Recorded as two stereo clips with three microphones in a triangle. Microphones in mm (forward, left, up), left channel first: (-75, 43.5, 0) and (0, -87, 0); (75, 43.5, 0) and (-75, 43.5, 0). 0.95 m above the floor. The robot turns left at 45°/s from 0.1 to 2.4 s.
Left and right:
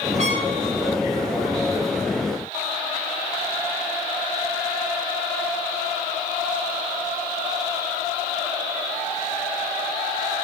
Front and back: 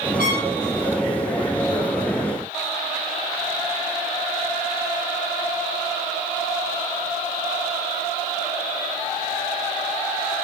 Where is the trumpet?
15° right, 5.5 m; by 0.5 s 25° right, 5.5 m.